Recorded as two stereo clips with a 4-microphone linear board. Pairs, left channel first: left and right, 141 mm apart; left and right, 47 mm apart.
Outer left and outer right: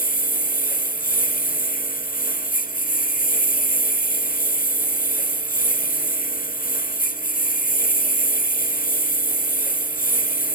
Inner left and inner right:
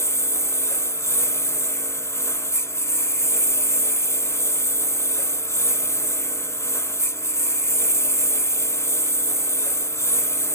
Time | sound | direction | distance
0.0 | a lawn mower | 85° left | ?